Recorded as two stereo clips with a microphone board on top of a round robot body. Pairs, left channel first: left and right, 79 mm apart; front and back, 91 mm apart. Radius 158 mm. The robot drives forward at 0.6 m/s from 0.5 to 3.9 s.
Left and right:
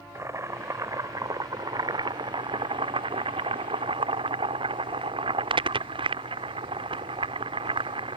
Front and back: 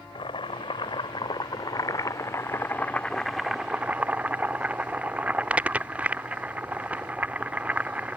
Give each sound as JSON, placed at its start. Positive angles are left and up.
{"t": 0.1, "sound": "boiling", "azimuth_deg": -35}